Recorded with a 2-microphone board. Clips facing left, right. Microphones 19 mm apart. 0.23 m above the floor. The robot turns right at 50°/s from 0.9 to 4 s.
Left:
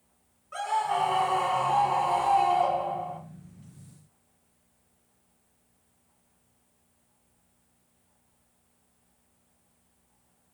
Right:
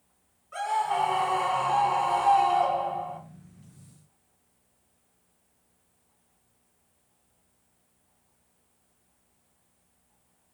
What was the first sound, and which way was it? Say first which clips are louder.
A scream: right 1 dB; 170° left.